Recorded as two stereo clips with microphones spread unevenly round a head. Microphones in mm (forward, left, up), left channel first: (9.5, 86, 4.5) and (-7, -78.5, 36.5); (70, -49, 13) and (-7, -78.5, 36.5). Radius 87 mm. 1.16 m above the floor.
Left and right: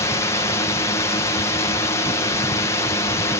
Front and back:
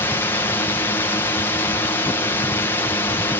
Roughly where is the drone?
Ahead left.